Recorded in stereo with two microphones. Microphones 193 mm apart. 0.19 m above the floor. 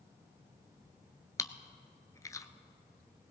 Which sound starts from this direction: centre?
Chewing, at 1.4 s.